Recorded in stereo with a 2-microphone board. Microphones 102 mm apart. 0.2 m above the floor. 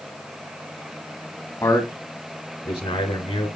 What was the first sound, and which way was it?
A man speaking, 30° left (ahead or behind).